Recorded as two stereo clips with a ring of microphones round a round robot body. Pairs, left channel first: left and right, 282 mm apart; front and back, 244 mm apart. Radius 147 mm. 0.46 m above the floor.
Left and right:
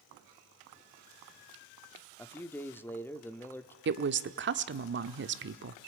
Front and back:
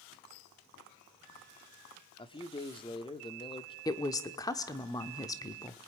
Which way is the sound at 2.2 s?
20° left.